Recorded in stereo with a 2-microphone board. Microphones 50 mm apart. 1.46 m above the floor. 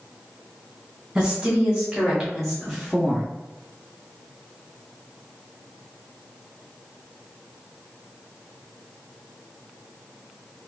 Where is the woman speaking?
10° right (ahead or behind), 1.6 m; by 3.3 s 15° left (ahead or behind), 0.6 m.